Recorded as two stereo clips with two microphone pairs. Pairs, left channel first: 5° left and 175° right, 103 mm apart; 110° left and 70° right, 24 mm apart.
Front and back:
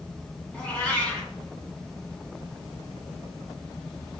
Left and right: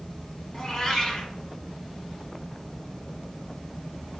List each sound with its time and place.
0.5 s a cat meowing: 70° left, 1.4 m